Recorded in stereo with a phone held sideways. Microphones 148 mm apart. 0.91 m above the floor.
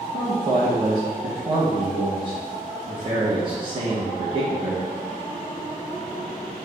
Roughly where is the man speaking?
Right.